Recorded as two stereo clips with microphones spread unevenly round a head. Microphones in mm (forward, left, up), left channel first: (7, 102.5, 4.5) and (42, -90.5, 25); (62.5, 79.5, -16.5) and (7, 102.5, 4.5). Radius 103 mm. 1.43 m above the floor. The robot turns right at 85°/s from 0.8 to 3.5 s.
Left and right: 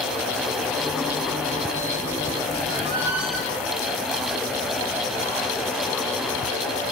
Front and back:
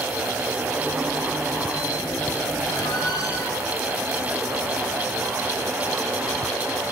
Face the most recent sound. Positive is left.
turn(degrees=30)